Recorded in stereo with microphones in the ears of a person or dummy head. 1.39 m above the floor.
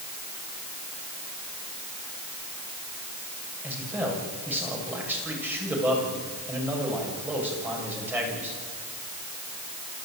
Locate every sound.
3.6 s a man speaking: 20° right (ahead or behind), 7 m